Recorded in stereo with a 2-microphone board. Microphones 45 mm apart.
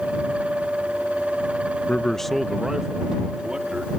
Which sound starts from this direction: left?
A man speaking, at 1.9 s.